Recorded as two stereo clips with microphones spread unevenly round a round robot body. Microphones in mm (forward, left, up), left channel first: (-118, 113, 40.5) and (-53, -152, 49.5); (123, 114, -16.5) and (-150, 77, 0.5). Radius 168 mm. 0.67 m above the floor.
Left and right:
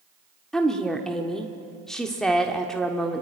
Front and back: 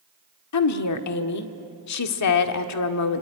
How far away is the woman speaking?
About 1.5 m.